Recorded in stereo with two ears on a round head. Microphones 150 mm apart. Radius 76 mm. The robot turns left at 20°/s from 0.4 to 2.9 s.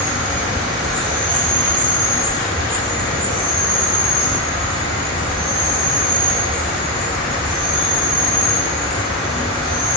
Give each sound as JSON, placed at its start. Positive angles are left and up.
{"t": 0.0, "sound": "an insect", "azimuth_deg": -170, "distance_m": 1.0}